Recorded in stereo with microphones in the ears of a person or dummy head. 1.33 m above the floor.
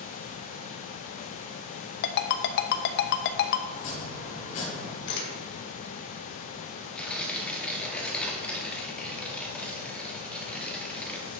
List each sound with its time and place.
2.0 s a ringtone: 60° left (ahead or behind), 0.7 m
3.7 s chopping: 40° left (ahead or behind), 2.5 m
5.1 s a camera shutter: 70° left (ahead or behind), 2.5 m
7.0 s tearing paper: 5° left (ahead or behind), 2.0 m